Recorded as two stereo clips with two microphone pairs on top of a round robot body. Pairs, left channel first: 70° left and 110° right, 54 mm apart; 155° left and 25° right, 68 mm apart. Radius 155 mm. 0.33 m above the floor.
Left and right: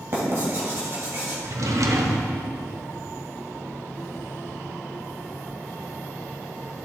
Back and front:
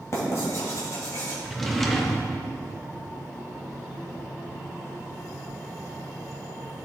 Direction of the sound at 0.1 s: 155° right.